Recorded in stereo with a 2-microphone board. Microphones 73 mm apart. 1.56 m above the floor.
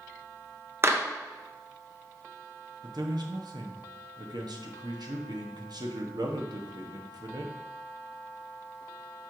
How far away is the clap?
About 0.9 m.